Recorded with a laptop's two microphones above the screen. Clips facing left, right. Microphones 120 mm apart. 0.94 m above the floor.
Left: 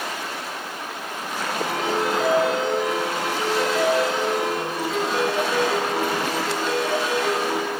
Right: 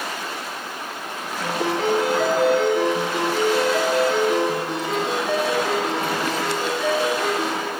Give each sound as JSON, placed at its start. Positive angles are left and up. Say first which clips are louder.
{"t": 1.4, "sound": "a ringtone", "louder": "right 4 dB", "side_deg": -85, "distance_m": 9.5}